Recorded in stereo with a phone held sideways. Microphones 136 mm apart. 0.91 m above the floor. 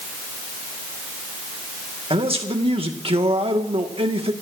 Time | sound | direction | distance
2.1 | a man speaking | 45° right (ahead or behind) | 1.6 m